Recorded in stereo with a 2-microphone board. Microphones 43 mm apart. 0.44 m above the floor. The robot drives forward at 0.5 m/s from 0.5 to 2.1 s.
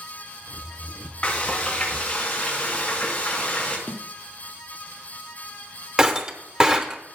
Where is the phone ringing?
I don't hear a phone ringing.